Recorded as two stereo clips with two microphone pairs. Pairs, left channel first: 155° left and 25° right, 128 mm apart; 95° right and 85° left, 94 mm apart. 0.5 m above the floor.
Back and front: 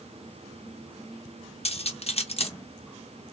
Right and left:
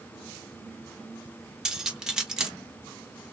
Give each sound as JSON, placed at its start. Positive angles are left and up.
{"t": 1.6, "sound": "cutlery clinking", "azimuth_deg": 170, "distance_m": 0.6}